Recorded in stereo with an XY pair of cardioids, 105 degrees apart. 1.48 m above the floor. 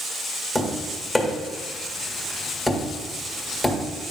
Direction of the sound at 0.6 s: 5° left.